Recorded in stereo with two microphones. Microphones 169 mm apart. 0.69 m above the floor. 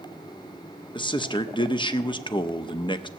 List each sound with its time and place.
0.9 s a man speaking: 30° left (ahead or behind), 0.7 m